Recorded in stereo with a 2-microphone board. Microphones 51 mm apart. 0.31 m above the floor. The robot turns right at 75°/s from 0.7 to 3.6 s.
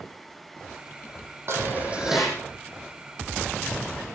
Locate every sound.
1.5 s dishes clattering: 60° right, 7.5 m; by 2.4 s 10° left, 7.5 m